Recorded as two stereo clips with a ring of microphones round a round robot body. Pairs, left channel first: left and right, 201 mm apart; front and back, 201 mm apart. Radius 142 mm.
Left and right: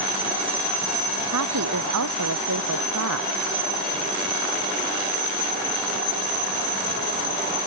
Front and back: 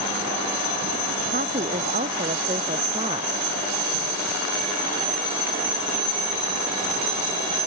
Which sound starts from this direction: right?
A woman speaking, at 1.3 s.